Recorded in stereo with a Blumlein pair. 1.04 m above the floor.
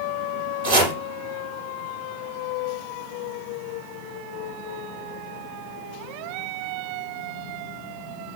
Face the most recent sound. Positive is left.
turn(degrees=-50)